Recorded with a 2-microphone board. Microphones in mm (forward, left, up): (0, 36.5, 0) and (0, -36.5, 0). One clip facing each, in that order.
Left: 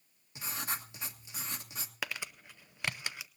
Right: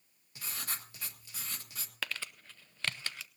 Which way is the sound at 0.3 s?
20° left (ahead or behind).